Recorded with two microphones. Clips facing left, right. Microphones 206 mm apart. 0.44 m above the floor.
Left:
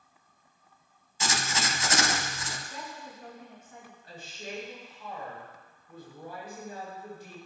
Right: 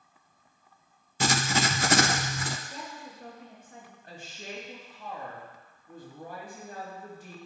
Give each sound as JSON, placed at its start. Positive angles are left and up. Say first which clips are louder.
{"t": 1.2, "sound": "writing", "louder": "right 6 dB", "side_deg": -60, "distance_m": 0.5}
{"t": 2.7, "sound": "a woman speaking", "louder": "even", "side_deg": -35, "distance_m": 3.5}
{"t": 4.0, "sound": "a woman speaking", "louder": "left 1 dB", "side_deg": -50, "distance_m": 3.0}